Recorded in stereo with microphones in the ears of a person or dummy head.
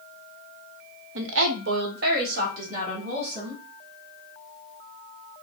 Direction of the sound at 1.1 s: 80° right.